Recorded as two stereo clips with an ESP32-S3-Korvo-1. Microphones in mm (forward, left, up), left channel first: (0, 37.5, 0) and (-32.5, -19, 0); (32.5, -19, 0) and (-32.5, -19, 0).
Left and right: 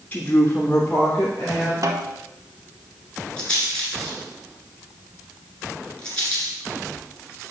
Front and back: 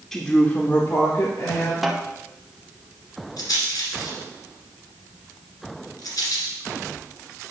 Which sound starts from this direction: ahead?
A rattle, at 3.4 s.